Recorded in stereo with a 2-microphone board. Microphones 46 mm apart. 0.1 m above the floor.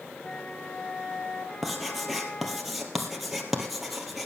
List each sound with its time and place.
0.2 s a flute: 20° left (ahead or behind), 1.1 m
1.6 s writing: centre (ahead or behind), 2.5 m